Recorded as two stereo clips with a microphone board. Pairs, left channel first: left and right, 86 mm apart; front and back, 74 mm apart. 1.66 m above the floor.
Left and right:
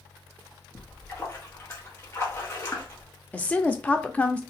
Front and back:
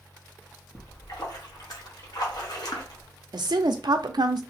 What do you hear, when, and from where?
0.8 s a splash: 30° left, 1.2 m
3.3 s a woman speaking: 165° left, 0.6 m